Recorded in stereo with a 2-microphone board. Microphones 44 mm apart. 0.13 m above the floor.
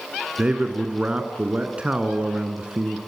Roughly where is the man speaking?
Right.